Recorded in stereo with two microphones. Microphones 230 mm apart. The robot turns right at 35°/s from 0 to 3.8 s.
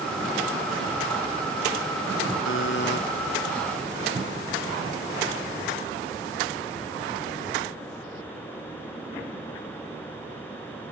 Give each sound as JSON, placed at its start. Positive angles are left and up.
{"t": 2.5, "sound": "a buzzer", "side_deg": 65}